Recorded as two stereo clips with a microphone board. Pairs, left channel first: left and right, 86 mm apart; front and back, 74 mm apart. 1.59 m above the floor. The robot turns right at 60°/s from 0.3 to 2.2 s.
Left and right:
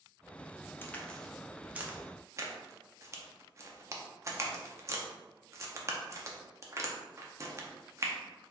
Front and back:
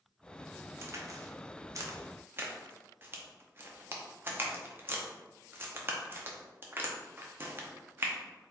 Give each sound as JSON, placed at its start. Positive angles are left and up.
{"t": 0.8, "sound": "a crack", "azimuth_deg": 145, "distance_m": 0.8}